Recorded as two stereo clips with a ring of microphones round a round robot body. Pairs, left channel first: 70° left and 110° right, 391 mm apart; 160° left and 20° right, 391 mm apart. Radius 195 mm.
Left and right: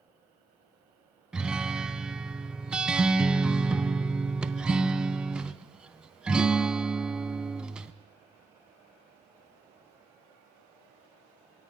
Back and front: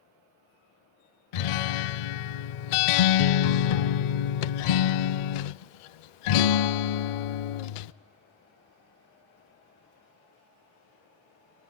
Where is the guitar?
160° left, 0.6 m.